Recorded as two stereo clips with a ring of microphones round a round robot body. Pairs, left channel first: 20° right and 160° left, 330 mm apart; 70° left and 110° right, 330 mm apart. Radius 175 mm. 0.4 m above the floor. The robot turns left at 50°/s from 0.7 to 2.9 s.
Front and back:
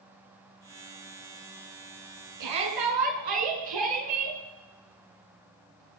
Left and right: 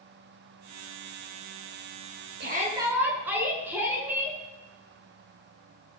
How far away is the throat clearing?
I don't hear throat clearing.